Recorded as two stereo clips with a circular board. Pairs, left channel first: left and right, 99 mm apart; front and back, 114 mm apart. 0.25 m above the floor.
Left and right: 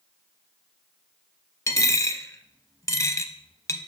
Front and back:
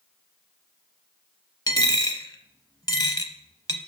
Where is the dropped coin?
45° left, 0.5 m.